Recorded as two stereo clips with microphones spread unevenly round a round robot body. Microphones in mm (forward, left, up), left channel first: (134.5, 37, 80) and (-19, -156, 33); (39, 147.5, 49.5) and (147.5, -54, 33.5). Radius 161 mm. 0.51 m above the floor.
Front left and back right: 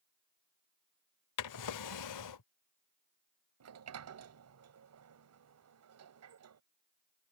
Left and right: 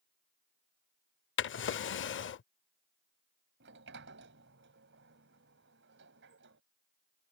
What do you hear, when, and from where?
1.4 s a drawer: 80° left
3.6 s a sliding door: 115° right